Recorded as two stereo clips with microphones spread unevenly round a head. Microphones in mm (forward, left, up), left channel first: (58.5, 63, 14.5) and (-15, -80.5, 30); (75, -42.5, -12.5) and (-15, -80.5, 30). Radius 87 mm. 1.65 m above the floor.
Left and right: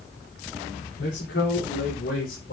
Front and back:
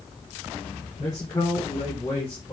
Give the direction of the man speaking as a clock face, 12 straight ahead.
9 o'clock.